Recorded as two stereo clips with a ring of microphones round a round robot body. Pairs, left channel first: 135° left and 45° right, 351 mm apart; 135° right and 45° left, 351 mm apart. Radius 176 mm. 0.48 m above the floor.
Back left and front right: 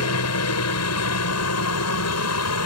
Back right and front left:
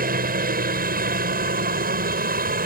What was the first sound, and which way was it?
A helicopter, 105° left.